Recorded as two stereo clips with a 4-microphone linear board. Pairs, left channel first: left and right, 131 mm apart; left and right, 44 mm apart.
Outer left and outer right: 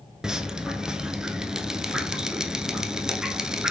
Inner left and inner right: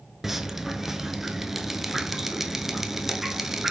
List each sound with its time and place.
0.2 s dripping: 5° right (ahead or behind), 0.5 m